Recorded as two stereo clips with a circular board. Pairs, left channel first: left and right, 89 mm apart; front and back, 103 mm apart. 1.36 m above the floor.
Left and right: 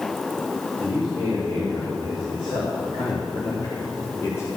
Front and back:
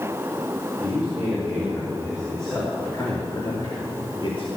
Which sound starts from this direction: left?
A man speaking, at 0.8 s.